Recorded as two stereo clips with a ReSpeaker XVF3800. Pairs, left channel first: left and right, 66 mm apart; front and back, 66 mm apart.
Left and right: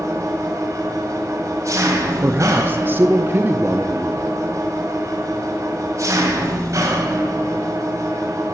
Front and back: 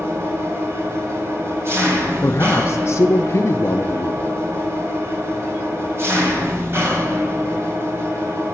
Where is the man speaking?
40° right, 0.8 m.